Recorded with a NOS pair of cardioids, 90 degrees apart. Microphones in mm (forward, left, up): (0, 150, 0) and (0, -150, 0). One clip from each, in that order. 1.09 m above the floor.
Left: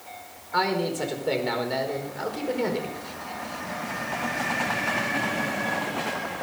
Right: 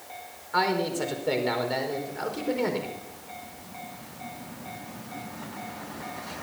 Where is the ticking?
No ticking in this recording.